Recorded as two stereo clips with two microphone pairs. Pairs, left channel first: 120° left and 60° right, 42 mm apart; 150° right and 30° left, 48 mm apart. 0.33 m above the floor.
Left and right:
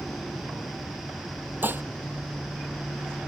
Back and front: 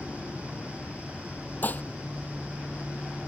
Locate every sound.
1.6 s dishes clattering: 95° right